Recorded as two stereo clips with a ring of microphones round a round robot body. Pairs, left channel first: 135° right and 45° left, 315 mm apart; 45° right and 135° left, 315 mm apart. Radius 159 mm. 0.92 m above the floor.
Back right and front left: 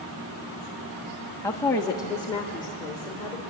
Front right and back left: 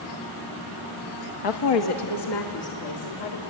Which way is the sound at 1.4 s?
50° right.